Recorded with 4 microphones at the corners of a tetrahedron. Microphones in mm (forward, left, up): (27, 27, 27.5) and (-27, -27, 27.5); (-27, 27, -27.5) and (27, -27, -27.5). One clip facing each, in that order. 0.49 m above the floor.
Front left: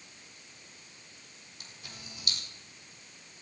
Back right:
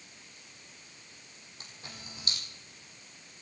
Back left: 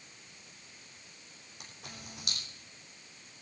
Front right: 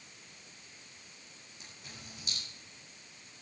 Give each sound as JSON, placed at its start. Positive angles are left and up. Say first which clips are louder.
{"t": 1.6, "sound": "a camera shutter", "louder": "back right 2 dB, back left 3 dB", "azimuth_deg": 165, "distance_m": 3.5}